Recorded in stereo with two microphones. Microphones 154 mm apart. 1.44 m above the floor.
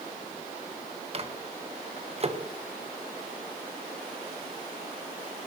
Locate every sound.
1.1 s a microwave: 40° right (ahead or behind), 1.2 m